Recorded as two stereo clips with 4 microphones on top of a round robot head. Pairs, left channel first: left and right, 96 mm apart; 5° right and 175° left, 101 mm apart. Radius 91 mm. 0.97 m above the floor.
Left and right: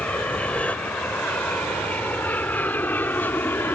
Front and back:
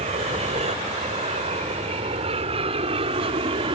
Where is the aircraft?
165° left; by 3.8 s 155° left.